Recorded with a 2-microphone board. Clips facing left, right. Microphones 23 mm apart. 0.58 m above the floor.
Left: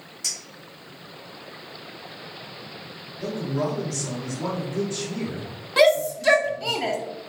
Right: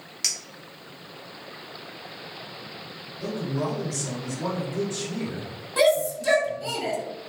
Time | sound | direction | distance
0.2 | a clink | 60° right (ahead or behind) | 1.2 m
3.2 | a man speaking | 20° left (ahead or behind) | 1.9 m
5.8 | a shout | 35° left (ahead or behind) | 1.1 m